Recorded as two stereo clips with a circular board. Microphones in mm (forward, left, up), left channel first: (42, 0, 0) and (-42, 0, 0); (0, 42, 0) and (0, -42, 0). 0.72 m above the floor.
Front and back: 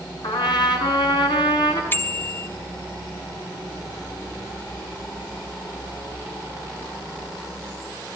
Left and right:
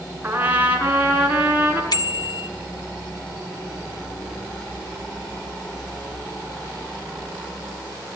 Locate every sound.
0.2 s a trumpet: 20° right, 6.5 m
1.9 s a bicycle bell: 65° left, 2.5 m